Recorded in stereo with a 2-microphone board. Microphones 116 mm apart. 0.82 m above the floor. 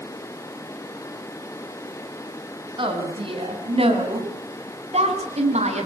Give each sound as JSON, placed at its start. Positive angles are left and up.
{"t": 2.8, "sound": "a woman speaking", "side_deg": -45, "distance_m": 7.0}